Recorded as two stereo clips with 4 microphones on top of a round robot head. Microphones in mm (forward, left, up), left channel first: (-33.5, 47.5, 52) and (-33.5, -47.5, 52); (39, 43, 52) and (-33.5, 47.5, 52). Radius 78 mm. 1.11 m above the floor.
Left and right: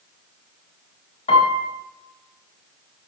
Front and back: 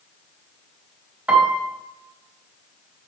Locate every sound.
1.3 s a piano: 105° left, 3.5 m